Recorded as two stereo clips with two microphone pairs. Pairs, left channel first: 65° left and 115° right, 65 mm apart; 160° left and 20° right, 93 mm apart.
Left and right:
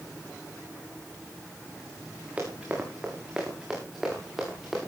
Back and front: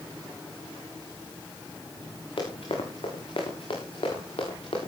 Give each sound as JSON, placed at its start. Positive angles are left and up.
{"t": 2.4, "sound": "running footsteps", "azimuth_deg": 175, "distance_m": 6.5}